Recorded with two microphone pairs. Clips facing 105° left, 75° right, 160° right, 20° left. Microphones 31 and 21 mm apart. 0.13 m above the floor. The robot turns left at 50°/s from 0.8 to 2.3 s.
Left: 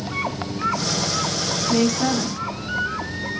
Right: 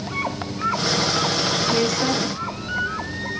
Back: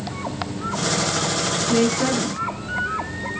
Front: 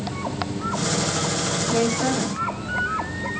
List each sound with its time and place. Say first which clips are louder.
1.7 s a woman speaking: left 5 dB, back 2 dB; 115° right, 1.0 m; by 3.3 s 150° right, 1.0 m